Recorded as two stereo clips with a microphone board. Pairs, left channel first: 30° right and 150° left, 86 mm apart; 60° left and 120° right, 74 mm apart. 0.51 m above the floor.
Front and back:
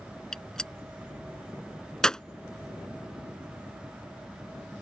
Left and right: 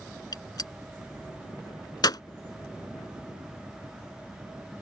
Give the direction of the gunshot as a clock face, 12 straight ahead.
10 o'clock.